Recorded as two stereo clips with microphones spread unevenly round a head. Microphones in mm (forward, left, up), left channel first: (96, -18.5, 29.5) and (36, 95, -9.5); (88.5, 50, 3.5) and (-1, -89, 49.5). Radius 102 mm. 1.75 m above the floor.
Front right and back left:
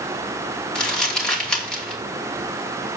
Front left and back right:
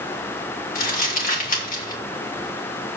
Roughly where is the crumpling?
Ahead.